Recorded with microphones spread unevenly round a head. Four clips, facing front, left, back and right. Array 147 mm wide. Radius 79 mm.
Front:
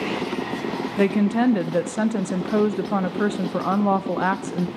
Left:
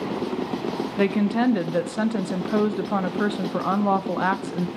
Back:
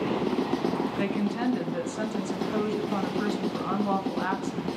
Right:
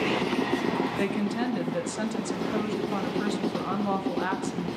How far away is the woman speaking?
About 0.6 m.